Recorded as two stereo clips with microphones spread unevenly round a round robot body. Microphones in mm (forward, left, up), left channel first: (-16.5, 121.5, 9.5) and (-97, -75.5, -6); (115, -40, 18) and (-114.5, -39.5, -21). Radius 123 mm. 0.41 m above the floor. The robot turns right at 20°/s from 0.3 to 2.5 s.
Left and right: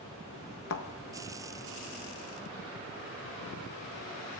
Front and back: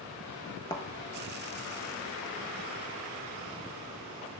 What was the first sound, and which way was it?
A thud, 65° left.